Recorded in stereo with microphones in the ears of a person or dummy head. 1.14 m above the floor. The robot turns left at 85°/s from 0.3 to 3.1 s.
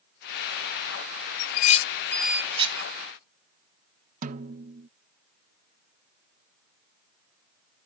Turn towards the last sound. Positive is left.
turn(degrees=-45)  # may be behind; listen again after turning